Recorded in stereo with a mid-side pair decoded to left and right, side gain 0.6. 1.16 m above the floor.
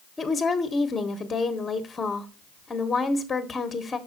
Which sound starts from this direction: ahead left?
A woman speaking, at 0.2 s.